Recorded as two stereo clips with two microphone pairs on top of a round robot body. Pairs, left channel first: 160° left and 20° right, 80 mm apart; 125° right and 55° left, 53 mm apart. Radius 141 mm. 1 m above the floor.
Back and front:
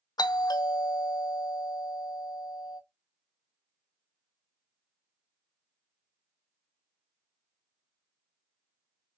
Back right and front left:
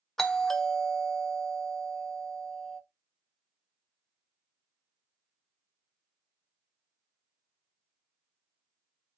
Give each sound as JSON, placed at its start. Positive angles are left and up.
{"t": 0.2, "sound": "a doorbell", "azimuth_deg": 155, "distance_m": 1.1}